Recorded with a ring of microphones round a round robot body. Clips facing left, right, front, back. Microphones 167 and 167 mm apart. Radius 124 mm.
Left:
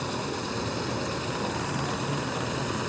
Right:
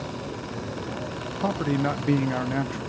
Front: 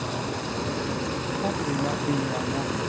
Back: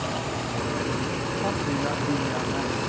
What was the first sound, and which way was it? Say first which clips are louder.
A man speaking: right 6 dB, even; 85° right.